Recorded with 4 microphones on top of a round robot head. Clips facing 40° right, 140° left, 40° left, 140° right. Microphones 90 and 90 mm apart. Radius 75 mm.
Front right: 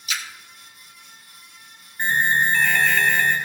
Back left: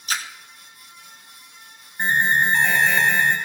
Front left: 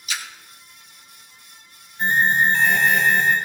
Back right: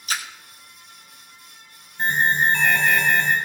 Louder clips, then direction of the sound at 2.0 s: Back left 1 dB, front left 2 dB; 155° right.